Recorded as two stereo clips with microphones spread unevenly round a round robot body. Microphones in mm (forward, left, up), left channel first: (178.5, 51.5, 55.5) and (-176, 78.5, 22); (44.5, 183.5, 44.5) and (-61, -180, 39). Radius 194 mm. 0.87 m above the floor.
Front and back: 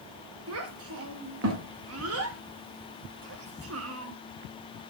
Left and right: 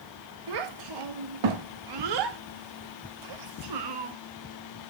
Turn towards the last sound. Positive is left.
turn(degrees=-130)